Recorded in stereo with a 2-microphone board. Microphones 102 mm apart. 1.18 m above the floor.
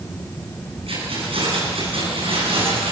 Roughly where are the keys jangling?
Right.